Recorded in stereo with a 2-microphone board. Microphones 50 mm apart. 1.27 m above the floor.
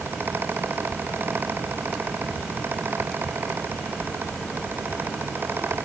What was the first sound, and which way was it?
Only background noise.